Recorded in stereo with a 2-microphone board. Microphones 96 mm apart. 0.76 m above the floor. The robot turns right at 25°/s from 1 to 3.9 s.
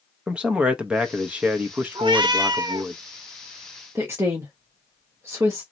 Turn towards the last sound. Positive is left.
turn(degrees=-30)  # may be behind; listen again after turning